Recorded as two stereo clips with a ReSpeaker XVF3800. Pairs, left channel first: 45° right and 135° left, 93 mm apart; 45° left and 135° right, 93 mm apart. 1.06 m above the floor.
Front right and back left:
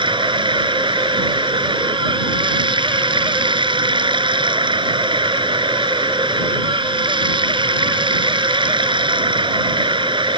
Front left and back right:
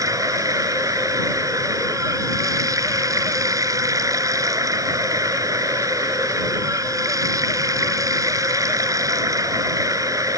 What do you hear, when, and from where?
0.0 s running water: 170° left